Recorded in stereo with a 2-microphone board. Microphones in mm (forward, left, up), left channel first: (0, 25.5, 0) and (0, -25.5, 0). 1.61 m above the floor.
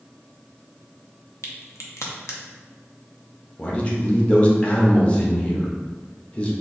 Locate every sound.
1.4 s a crack: 65° left (ahead or behind), 0.7 m
3.6 s a man speaking: 20° left (ahead or behind), 0.8 m